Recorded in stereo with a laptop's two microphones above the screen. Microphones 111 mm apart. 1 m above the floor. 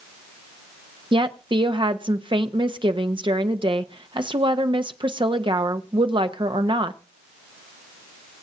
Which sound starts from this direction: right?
A woman speaking, at 1.1 s.